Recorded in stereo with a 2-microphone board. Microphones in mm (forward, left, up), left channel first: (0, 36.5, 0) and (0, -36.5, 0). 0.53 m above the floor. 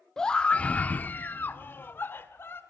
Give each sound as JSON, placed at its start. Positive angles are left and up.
{"t": 0.2, "sound": "a scream", "side_deg": 10, "distance_m": 0.7}